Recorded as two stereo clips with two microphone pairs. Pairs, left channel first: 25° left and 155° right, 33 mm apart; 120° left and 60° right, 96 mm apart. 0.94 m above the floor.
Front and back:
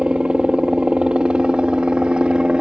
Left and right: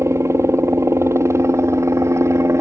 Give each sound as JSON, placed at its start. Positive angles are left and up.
{"t": 0.0, "sound": "a helicopter", "azimuth_deg": -110}